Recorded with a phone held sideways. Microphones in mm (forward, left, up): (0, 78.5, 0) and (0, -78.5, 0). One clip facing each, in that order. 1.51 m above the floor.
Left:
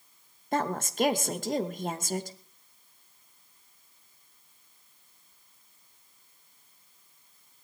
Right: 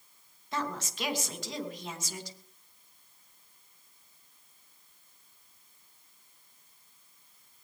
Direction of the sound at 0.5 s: 50° left (ahead or behind).